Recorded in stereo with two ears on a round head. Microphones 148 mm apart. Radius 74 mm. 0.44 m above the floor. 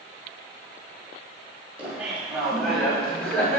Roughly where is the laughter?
Centre.